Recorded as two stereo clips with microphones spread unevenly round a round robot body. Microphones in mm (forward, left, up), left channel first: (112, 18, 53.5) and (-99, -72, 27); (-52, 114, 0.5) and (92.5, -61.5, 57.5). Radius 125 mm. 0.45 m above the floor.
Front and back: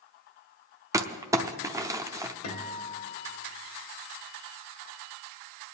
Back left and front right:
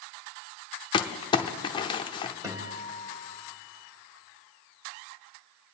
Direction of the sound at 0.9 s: 145° left.